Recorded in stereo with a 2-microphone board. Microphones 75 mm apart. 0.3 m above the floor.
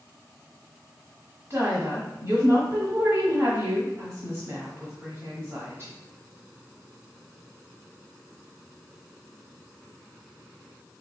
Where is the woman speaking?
40° right (ahead or behind), 1.1 m.